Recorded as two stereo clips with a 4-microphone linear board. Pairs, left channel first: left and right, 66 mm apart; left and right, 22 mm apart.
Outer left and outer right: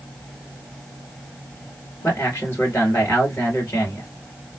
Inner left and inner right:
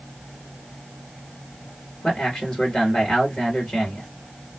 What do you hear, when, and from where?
2.0 s a man speaking: 30° left (ahead or behind), 2.5 m